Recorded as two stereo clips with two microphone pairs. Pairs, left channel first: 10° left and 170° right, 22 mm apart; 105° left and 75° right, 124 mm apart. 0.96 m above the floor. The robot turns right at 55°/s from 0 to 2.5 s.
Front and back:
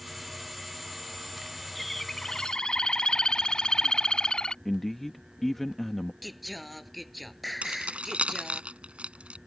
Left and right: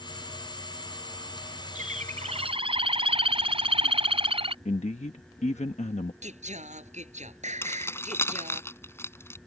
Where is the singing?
80° right.